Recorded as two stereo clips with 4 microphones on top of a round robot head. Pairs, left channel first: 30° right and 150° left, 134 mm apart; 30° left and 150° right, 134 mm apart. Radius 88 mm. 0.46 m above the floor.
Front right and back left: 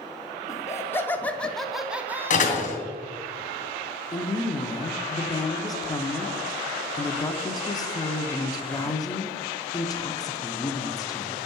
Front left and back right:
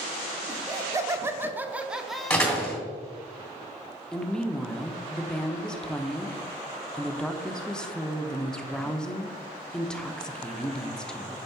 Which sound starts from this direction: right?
Laughter, at 0.5 s.